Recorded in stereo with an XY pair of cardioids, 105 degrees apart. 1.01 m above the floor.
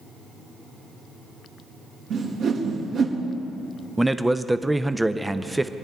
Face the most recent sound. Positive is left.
turn(degrees=-10)